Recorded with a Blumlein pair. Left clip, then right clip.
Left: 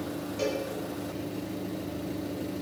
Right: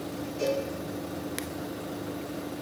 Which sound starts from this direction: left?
A cowbell, at 0.4 s.